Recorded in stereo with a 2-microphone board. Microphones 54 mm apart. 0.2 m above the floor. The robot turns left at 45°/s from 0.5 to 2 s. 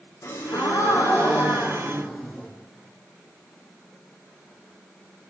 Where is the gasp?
85° left, 5.5 m; by 2.5 s 20° left, 5.5 m.